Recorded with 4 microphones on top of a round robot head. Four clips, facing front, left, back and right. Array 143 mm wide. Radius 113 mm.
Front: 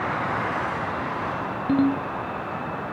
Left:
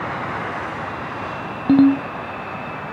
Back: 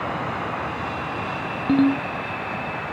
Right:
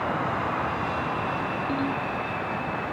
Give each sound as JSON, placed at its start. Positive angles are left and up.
{"t": 1.7, "sound": "a ringtone", "azimuth_deg": 100}